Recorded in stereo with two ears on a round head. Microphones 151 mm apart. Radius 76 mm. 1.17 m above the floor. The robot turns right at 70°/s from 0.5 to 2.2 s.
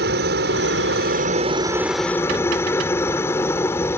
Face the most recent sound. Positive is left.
turn(degrees=15)